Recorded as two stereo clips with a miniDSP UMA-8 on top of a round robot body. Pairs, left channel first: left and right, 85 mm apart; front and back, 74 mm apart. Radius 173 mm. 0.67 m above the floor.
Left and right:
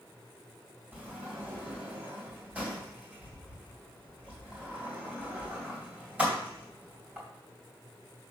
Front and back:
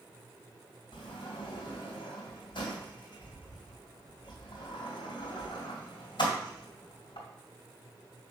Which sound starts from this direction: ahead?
A sliding door, at 0.9 s.